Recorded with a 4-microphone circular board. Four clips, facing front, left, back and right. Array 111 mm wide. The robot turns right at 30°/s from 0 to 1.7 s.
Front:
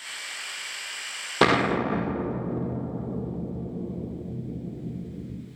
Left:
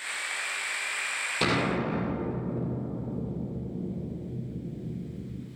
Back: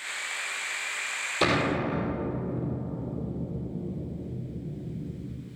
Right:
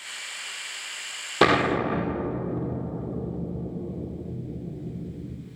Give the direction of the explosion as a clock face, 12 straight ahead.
1 o'clock.